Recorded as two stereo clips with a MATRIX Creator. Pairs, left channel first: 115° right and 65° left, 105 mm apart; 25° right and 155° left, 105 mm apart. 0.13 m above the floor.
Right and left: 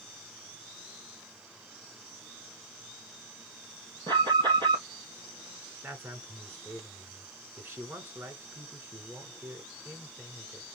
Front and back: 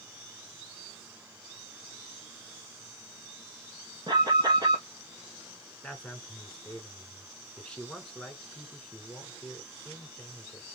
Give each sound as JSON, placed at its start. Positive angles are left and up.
{"t": 4.1, "sound": "an alarm", "azimuth_deg": 110, "distance_m": 3.0}
{"t": 5.8, "sound": "a man speaking", "azimuth_deg": 45, "distance_m": 1.4}